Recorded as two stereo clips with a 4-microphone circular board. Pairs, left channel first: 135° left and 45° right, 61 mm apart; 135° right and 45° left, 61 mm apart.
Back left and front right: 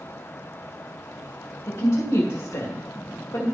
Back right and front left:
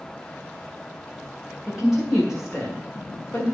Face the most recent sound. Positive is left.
turn(degrees=145)